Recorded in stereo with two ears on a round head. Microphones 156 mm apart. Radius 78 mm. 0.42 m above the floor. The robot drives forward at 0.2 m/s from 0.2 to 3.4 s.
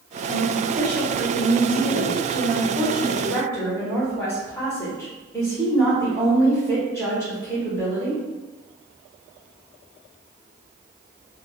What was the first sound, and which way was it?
A woman speaking, 10° left (ahead or behind).